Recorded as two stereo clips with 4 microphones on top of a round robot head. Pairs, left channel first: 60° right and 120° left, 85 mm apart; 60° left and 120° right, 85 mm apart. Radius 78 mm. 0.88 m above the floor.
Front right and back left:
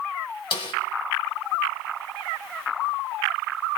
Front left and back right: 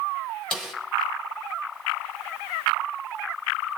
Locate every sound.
0.5 s a snare drum: 25° right, 4 m